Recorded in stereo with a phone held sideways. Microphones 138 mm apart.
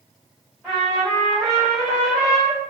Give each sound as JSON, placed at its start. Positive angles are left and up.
{"t": 0.6, "sound": "a trumpet", "side_deg": 0, "distance_m": 1.3}